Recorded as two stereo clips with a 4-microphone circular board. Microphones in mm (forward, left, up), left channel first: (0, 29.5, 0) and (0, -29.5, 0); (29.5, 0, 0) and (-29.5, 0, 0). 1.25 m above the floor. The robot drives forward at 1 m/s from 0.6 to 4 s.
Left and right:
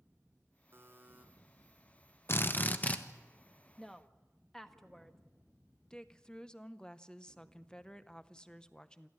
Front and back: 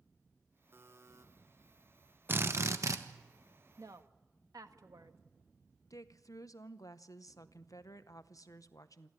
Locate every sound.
0.7 s a buzzer: 135° right, 1.2 m; by 1.2 s 150° right, 1.6 m
2.3 s a drill: 135° left, 0.8 m; by 3.0 s 155° left, 1.4 m
3.8 s a woman speaking: 175° left, 1.1 m
5.9 s a woman speaking: 15° left, 0.7 m